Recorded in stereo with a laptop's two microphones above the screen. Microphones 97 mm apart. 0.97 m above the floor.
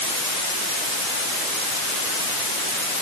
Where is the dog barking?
I don't hear a dog barking.